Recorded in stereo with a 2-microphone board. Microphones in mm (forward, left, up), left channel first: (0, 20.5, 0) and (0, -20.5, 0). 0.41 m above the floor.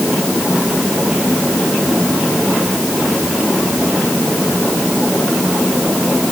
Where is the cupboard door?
I don't hear a cupboard door.